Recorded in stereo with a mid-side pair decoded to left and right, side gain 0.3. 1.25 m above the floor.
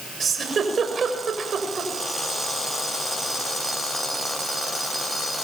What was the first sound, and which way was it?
A giggle, 65° right.